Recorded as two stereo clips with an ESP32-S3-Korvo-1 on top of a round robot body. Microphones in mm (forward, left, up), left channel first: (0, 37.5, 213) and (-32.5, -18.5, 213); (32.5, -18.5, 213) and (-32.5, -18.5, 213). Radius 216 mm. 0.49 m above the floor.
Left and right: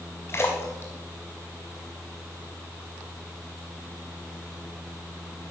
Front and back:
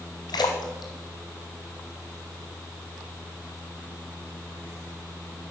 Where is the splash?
5° left, 0.8 m.